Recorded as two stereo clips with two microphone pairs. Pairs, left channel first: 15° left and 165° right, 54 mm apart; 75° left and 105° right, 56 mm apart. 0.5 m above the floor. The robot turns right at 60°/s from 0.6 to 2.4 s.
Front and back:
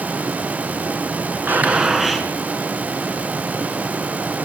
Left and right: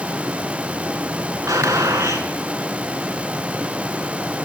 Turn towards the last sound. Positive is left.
turn(degrees=-60)